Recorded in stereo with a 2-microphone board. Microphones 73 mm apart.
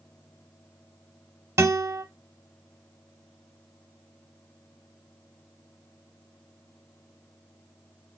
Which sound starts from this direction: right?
A guitar, at 1.6 s.